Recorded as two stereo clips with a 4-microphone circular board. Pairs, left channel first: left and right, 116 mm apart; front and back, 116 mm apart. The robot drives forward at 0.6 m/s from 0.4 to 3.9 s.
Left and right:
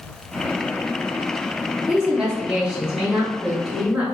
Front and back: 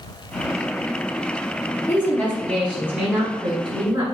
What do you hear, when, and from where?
1.9 s a woman speaking: 20° right, 1.1 m; by 4.0 s 170° right, 1.4 m